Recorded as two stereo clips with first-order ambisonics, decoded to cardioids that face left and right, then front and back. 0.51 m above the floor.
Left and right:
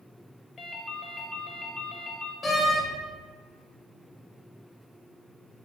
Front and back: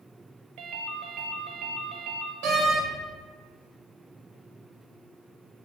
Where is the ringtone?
155° left, 0.8 m.